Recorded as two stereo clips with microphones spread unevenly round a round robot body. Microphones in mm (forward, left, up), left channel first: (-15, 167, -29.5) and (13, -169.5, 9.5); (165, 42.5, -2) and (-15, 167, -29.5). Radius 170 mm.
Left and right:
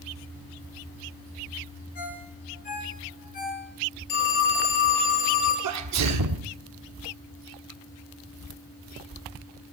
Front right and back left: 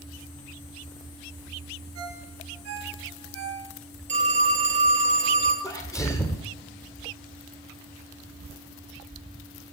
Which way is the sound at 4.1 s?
90° left.